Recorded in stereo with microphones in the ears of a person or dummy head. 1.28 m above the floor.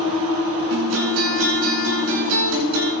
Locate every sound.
0.7 s a guitar: 75° right (ahead or behind), 8.5 m